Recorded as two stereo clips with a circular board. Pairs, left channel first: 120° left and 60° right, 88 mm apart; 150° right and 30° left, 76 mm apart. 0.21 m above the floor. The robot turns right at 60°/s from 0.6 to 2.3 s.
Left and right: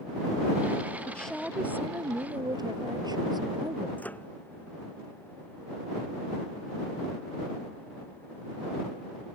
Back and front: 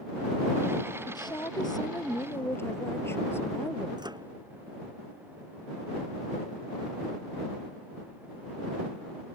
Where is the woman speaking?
170° right; by 3.9 s 95° right.